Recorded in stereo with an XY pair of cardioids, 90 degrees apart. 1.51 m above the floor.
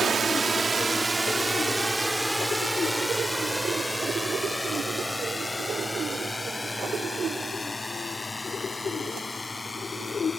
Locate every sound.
0.0 s a drone: 40° right; by 10.4 s 25° left